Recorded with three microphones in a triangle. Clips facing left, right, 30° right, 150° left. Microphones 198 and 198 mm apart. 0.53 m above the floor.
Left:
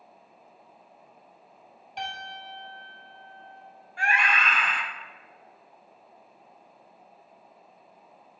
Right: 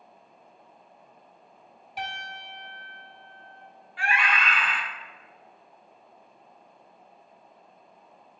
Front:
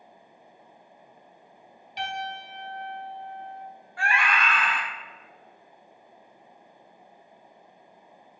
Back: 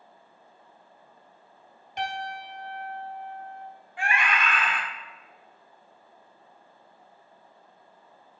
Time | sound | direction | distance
2.0 | a piano | 175° right | 1.0 m
4.0 | a scream | 90° left | 1.0 m